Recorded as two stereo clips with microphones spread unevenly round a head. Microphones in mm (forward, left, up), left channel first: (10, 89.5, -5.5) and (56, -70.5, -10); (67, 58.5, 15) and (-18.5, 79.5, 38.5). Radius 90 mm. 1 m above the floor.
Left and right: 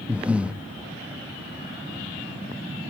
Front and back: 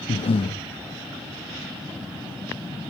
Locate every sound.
0.1 s breathing: 10° left, 0.6 m